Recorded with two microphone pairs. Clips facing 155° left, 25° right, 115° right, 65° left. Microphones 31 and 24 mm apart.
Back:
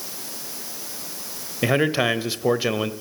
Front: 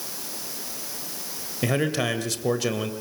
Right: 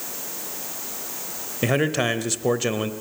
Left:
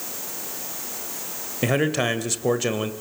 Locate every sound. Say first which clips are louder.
1.6 s a man speaking: back 4 dB, even; 155° left, 1.4 m